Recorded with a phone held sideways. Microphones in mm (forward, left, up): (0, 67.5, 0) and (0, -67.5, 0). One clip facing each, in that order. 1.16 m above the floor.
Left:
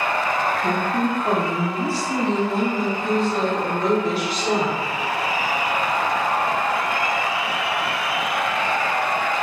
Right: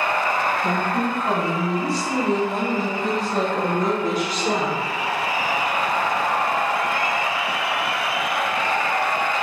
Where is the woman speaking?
25° left (ahead or behind), 1.1 m; by 4.8 s 45° right (ahead or behind), 1.3 m.